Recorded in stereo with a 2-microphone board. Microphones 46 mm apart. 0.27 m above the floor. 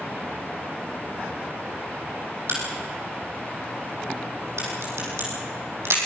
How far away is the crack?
About 6.5 m.